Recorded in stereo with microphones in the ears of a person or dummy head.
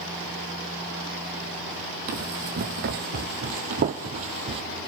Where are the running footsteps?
40° right (ahead or behind), 1.9 m; by 4.6 s 35° right (ahead or behind), 1.6 m.